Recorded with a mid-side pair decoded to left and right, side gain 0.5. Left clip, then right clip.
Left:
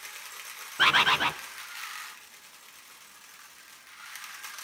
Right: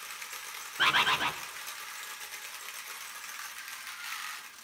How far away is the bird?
About 0.6 m.